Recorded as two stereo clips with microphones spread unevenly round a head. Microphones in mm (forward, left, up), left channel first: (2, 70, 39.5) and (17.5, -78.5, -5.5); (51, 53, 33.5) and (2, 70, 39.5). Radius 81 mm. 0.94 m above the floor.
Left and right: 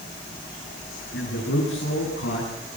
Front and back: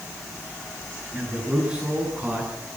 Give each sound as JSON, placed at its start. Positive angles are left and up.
{"t": 1.1, "sound": "a man speaking", "azimuth_deg": 90, "distance_m": 8.5}